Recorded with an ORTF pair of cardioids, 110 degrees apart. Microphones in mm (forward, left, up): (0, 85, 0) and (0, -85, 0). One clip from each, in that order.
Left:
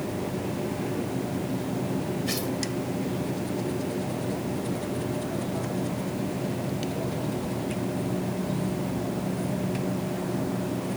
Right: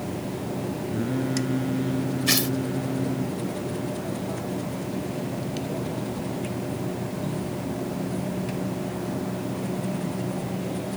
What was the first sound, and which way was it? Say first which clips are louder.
Singing: right 3 dB; 60° right.